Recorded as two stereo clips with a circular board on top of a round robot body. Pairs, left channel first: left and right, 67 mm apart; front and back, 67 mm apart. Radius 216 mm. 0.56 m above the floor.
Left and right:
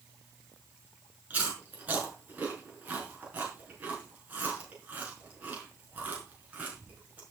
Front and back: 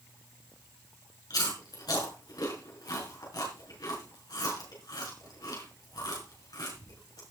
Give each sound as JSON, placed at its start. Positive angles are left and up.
{"t": 1.3, "sound": "chewing", "azimuth_deg": -20, "distance_m": 5.0}